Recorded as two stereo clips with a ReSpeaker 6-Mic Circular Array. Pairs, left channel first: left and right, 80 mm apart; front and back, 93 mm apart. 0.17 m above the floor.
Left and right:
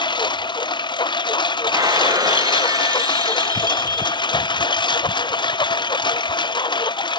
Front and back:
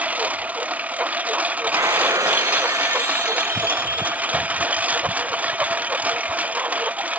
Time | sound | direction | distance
0.0 | a lawn mower | 105° left | ?
1.7 | breaking glass | 125° right | ?